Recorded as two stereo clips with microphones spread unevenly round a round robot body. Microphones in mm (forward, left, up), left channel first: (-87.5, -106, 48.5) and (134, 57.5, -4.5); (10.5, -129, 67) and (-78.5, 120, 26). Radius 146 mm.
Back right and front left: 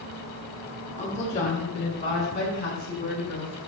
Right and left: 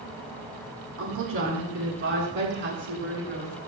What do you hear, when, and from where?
1.0 s a woman speaking: 145° left, 4.5 m; by 3.6 s 160° left, 6.5 m